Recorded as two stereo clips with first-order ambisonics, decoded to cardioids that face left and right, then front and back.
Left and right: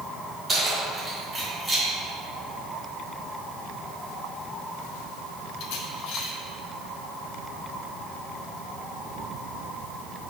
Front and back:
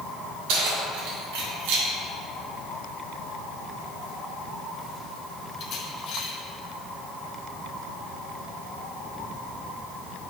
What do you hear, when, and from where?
0.5 s keys jangling: 170° right, 2 m; by 6.3 s 45° left, 1.0 m